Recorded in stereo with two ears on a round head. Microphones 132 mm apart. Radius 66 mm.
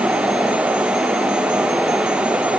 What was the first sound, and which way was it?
Only background noise.